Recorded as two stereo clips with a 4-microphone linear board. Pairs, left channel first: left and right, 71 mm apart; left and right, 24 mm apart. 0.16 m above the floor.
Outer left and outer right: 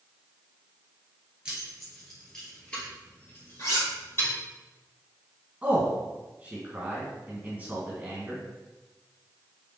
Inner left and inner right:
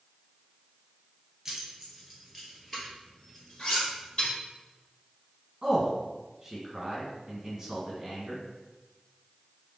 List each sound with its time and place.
1.4 s keys jangling: 10° right (ahead or behind), 1.8 m; by 4.3 s 35° left (ahead or behind), 3 m
3.6 s cutlery clinking: 45° left (ahead or behind), 1.6 m
5.6 s a man speaking: 20° right (ahead or behind), 1.6 m